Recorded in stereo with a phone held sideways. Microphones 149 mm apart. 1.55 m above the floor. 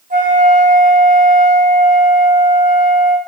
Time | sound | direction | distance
0.1 | a flute | 70° right (ahead or behind) | 4.5 m